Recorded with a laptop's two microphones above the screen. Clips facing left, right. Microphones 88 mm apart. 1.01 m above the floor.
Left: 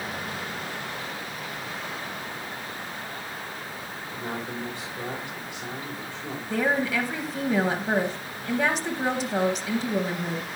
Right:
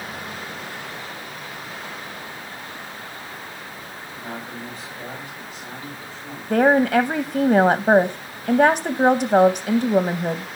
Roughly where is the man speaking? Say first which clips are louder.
Left 1 dB; left.